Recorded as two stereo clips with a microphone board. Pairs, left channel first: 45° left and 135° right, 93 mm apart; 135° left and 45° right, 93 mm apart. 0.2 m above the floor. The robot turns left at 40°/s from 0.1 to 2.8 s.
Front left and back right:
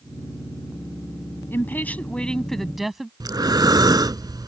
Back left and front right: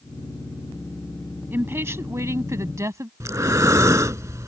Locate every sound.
1.5 s a woman speaking: straight ahead; by 3.1 s 50° right
3.2 s breathing: 95° right